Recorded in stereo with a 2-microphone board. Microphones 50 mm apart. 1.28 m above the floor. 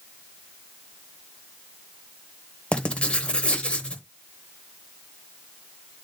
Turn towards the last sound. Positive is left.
turn(degrees=20)  # may be behind; listen again after turning